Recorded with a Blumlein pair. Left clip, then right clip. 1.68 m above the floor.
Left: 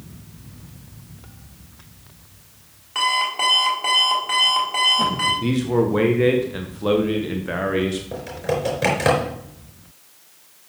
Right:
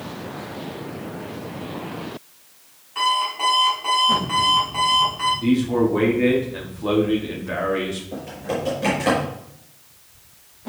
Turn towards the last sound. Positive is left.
turn(degrees=55)